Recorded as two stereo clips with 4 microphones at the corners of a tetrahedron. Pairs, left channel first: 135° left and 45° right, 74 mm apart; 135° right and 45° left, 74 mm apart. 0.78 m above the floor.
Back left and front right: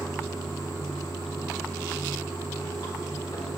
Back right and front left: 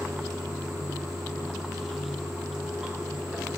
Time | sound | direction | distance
0.0 | running water | 125° left | 4.5 m